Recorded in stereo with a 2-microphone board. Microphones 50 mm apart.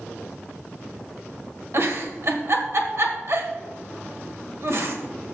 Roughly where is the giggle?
Right.